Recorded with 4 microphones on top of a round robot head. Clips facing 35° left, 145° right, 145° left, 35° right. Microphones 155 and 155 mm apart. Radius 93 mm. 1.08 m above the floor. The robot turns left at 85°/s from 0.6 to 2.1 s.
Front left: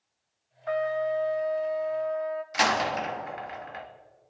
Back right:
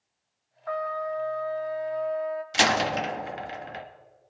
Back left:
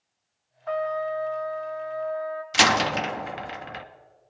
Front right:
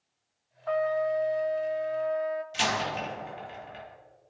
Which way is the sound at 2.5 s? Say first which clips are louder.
Back right 2 dB, back left 7 dB; 150° left.